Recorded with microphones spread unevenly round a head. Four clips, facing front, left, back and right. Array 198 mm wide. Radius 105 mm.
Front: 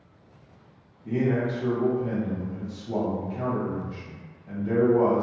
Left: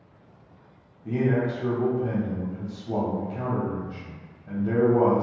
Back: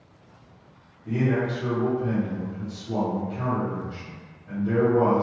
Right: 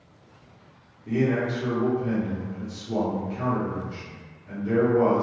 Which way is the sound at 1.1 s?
80° left.